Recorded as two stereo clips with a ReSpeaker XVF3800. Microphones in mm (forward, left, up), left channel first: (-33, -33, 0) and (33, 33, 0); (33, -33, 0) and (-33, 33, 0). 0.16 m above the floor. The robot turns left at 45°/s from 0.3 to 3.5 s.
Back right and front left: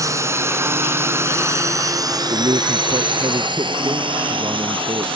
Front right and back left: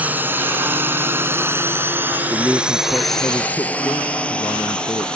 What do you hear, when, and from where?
0.0 s a drone: 70° left; by 5.2 s 35° left
2.3 s a man speaking: 65° left; by 5.2 s 10° left